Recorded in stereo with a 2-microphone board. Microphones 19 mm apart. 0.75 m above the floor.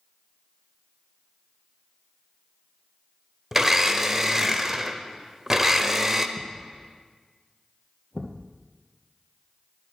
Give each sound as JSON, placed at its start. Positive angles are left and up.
{"t": 3.5, "sound": "a blender", "side_deg": -20, "distance_m": 0.6}
{"t": 6.4, "sound": "a thud", "side_deg": 25, "distance_m": 1.3}